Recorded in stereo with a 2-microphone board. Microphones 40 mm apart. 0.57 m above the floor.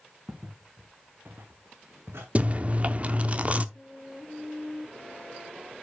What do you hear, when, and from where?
0.3 s footsteps: 35° right (ahead or behind), 2.5 m; by 2.2 s 75° right (ahead or behind), 2.5 m
2.4 s chewing: 35° right (ahead or behind), 0.8 m
3.8 s a flute: 15° right (ahead or behind), 2.5 m